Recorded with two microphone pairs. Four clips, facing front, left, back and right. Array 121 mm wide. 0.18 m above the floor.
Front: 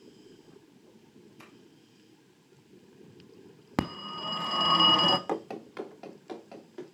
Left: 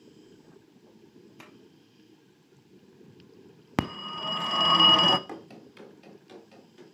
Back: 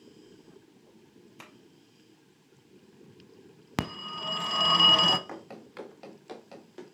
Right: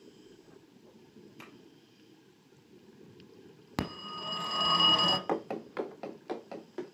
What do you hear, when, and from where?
1.4 s tapping: 165° left, 2.5 m
3.8 s a phone ringing: 80° left, 0.7 m
5.3 s running footsteps: 45° right, 0.8 m; by 7.0 s 100° right, 3 m